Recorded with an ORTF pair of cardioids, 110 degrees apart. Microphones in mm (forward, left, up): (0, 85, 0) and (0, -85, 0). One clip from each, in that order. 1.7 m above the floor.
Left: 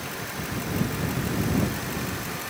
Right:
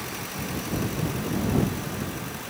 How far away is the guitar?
No guitar in this recording.